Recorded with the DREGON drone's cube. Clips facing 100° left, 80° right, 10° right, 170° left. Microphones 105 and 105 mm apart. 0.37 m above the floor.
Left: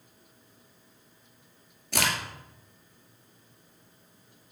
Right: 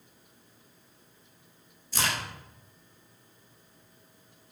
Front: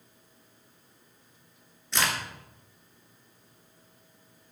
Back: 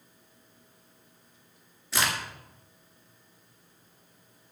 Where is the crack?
85° left, 1.9 m.